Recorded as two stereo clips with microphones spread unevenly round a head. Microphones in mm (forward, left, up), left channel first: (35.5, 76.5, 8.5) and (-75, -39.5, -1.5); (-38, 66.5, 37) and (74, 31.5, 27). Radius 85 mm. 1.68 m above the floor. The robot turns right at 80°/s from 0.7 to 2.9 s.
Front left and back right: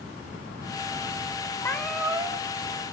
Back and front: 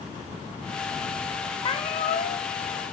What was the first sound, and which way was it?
A cat meowing, 115° left.